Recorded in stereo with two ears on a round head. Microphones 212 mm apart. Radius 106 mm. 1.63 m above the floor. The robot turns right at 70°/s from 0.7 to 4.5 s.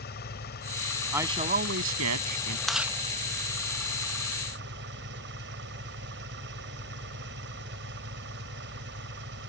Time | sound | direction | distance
0.0 | an engine running | 45° left | ?
1.1 | a man speaking | 175° right | ?
2.7 | chewing | centre (ahead or behind) | ?